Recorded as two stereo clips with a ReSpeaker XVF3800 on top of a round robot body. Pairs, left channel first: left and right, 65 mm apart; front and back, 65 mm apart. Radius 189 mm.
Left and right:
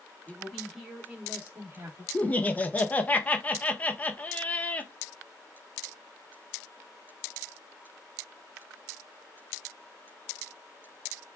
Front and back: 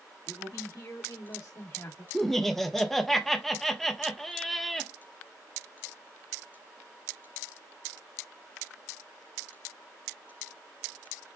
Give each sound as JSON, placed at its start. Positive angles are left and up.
{"t": 0.3, "sound": "a man speaking", "azimuth_deg": 5, "distance_m": 2.5}
{"t": 2.1, "sound": "laughter", "azimuth_deg": 80, "distance_m": 1.0}